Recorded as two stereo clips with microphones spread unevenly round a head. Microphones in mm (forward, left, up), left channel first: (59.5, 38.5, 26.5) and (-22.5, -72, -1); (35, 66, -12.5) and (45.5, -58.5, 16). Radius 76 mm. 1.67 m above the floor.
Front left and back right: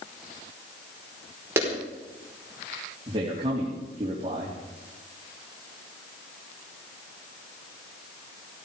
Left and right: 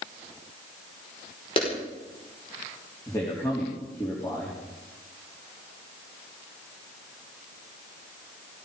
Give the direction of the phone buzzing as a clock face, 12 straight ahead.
No phone buzzing in this recording.